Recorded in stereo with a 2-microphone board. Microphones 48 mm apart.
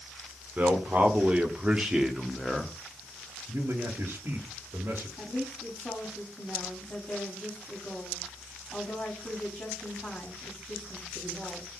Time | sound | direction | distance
0.6 | a man speaking | 40° right (ahead or behind) | 1.7 m
3.5 | a man speaking | 55° right (ahead or behind) | 1.8 m
5.2 | a woman speaking | 30° left (ahead or behind) | 3.5 m